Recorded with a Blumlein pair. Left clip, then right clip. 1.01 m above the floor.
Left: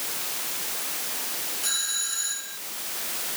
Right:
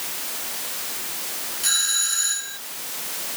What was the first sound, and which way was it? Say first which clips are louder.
A doorbell: right 7 dB; 15° right.